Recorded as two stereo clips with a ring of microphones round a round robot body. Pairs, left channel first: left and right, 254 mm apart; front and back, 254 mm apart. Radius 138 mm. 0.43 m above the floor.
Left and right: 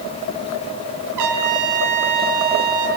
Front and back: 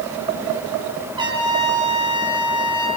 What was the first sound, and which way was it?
A trumpet, 105° right.